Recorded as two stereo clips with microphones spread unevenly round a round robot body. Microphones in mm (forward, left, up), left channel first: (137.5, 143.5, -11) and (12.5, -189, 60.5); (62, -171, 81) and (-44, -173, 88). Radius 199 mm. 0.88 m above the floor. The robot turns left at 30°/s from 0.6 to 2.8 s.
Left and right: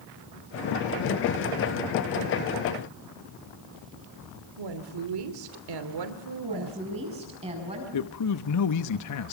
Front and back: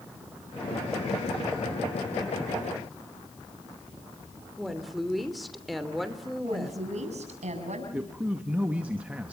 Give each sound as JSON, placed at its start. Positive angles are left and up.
{"t": 4.6, "sound": "a woman speaking", "azimuth_deg": -90, "distance_m": 3.0}
{"t": 6.4, "sound": "a woman speaking", "azimuth_deg": 175, "distance_m": 7.5}
{"t": 7.9, "sound": "a man speaking", "azimuth_deg": 100, "distance_m": 1.0}